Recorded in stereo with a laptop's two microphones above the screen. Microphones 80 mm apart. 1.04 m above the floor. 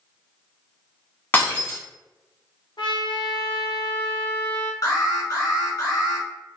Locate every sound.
1.3 s breaking glass: 25° left (ahead or behind), 1.5 m
2.8 s a trumpet: 80° left, 0.8 m
4.8 s an alarm: 45° left (ahead or behind), 1.8 m